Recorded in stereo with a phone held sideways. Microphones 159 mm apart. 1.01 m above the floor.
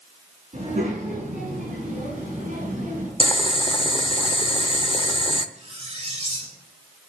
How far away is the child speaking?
About 7 m.